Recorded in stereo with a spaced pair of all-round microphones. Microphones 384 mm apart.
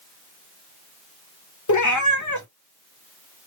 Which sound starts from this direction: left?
A cat meowing, at 1.7 s.